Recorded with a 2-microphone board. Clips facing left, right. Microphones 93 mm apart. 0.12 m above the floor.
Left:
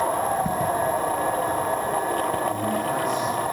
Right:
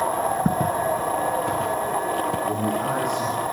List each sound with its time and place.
0.5 s footsteps: 45° right (ahead or behind), 1.1 m; by 2.4 s 90° right, 2 m
2.5 s a man speaking: 60° right (ahead or behind), 5.5 m